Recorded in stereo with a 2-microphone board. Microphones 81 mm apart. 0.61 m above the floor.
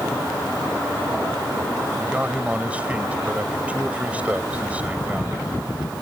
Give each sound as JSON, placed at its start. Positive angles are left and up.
{"t": 2.0, "sound": "a man speaking", "side_deg": -15}